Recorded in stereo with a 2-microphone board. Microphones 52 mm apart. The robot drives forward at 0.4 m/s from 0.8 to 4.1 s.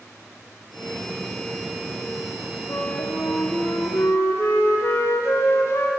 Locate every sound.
2.7 s a flute: 60° left (ahead or behind), 0.6 m; by 5.9 s 50° left (ahead or behind), 0.7 m